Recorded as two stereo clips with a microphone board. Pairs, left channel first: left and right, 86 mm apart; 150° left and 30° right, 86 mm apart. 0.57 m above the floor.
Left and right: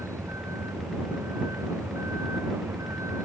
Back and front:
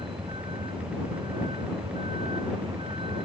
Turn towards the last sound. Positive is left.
turn(degrees=-35)